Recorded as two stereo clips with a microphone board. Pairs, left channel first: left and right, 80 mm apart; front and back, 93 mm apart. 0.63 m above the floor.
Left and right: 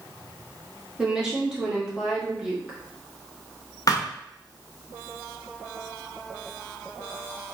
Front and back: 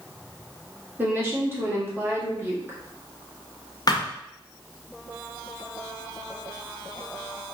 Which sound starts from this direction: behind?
A woman speaking, at 1.0 s.